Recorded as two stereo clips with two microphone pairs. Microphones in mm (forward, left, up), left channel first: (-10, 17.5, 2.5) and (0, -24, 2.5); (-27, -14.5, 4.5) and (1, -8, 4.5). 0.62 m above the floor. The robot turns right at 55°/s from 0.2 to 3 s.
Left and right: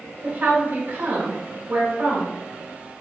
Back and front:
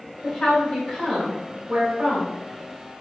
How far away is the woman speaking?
About 2.5 m.